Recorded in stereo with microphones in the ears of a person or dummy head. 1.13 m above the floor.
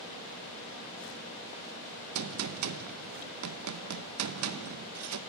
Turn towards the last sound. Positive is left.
turn(degrees=-85)